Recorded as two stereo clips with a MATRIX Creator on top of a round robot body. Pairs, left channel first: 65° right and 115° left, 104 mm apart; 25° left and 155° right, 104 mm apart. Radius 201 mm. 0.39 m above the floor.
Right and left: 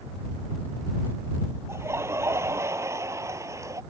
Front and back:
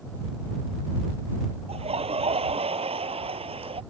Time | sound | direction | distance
1.7 | laughter | straight behind | ?